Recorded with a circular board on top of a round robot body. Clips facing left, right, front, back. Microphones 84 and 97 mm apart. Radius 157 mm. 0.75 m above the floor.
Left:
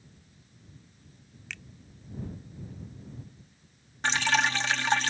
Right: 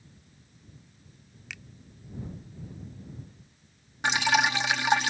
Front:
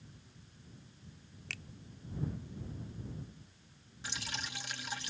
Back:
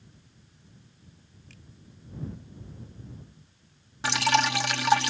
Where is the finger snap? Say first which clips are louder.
Left 1 dB, front 7 dB; 5° right.